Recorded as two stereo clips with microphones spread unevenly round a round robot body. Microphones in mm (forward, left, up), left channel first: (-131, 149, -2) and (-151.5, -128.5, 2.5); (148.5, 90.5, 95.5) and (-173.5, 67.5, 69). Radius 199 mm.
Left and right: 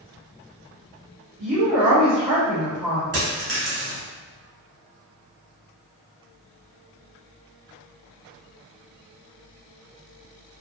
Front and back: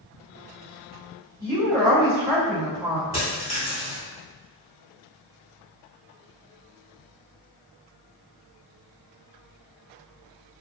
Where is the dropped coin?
95° right, 0.8 m.